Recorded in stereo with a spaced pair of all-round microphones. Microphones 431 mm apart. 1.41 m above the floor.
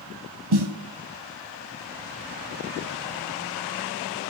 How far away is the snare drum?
About 1.1 m.